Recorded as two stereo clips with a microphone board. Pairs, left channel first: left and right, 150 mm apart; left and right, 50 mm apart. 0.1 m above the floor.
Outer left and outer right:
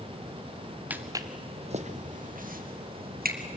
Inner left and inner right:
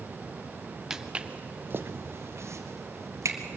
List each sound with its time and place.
0.9 s footsteps: 10° right (ahead or behind), 1.6 m; by 3.4 s 80° right, 3.5 m